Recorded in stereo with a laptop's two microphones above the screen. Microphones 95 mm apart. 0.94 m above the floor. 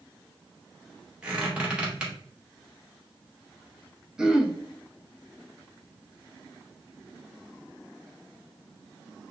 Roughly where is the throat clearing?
Centre.